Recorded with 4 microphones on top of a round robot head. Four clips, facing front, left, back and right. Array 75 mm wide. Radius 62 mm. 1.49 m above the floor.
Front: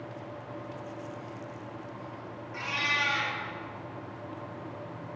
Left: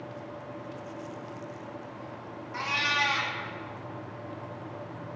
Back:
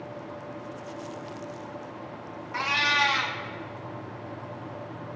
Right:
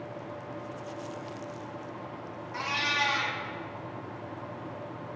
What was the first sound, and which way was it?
A cat meowing, straight behind.